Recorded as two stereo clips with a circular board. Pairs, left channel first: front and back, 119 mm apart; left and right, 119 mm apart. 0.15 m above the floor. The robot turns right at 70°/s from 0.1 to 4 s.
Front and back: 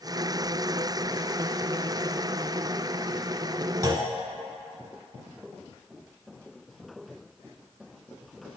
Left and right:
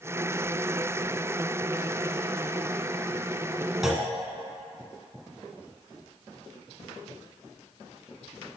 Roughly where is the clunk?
Behind.